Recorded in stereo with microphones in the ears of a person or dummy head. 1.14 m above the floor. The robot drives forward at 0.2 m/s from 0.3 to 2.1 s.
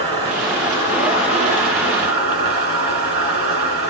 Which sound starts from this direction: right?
An insect, at 0.0 s.